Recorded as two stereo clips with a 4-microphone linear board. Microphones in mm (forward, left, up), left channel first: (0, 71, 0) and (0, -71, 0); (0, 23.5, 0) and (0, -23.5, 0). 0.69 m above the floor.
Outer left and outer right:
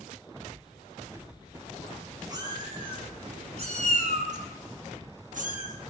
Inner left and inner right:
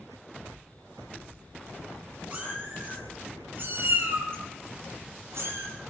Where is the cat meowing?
30° right (ahead or behind), 3.5 m; by 5.7 s 75° right (ahead or behind), 5 m.